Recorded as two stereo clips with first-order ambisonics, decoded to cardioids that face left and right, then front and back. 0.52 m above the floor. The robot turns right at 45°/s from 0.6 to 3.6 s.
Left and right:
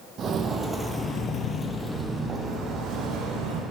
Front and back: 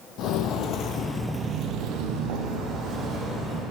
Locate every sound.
0.2 s footsteps: 35° right, 1.0 m; by 3.6 s 95° right, 2 m